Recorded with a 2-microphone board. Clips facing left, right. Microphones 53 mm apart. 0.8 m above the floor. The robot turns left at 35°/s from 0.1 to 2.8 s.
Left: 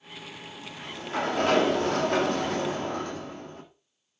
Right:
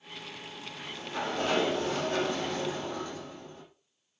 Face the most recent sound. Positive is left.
turn(degrees=60)